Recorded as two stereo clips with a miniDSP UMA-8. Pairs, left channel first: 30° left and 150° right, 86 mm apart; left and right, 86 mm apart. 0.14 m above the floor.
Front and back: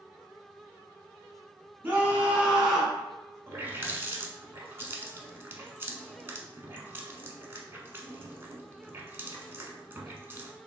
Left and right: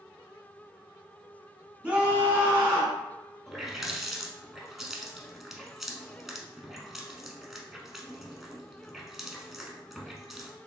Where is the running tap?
175° right, 0.8 m.